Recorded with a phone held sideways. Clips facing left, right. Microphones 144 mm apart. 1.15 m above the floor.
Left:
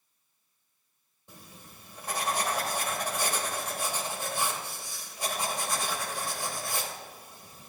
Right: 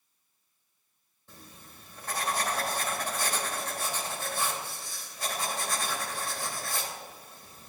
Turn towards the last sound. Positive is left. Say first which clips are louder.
# left 1 dB
turn(degrees=15)  # may be behind; listen again after turning